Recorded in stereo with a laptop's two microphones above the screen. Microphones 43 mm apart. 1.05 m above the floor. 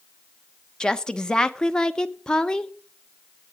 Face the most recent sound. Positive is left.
turn(degrees=20)  # may be behind; listen again after turning